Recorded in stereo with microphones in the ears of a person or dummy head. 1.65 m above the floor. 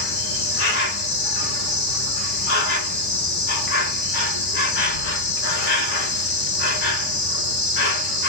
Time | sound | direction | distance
0.0 | an insect | 50° left (ahead or behind) | 1.2 m